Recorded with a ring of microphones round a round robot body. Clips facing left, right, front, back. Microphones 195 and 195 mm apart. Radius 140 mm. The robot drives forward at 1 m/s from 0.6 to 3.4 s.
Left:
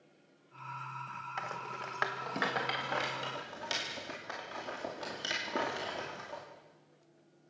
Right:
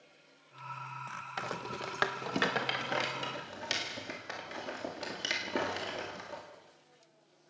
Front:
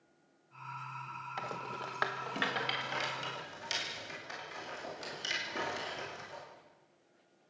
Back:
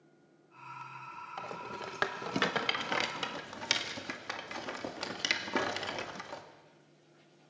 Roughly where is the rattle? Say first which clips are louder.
Right 5 dB, even; right.